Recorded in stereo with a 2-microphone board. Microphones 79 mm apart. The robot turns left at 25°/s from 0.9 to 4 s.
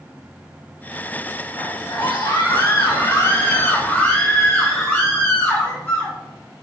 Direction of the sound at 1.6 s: 85° left.